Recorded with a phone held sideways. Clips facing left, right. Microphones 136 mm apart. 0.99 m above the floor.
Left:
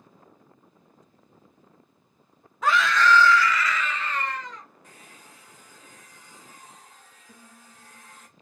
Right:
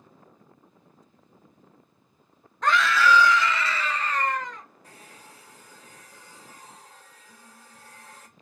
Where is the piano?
40° left (ahead or behind), 2 m.